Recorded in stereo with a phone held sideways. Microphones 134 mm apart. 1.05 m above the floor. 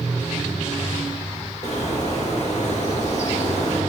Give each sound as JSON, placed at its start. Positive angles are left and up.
{"t": 1.6, "sound": "a bird", "side_deg": 55, "distance_m": 1.7}